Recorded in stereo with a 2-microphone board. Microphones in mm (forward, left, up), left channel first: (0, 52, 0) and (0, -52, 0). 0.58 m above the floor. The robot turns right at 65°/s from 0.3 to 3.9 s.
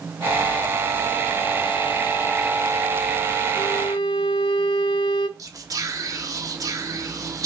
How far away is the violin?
About 0.5 m.